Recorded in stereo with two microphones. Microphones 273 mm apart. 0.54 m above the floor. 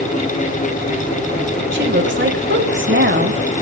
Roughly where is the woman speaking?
Right.